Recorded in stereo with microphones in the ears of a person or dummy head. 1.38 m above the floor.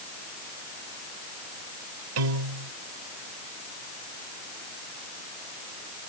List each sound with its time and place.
2.2 s a piano: 85° right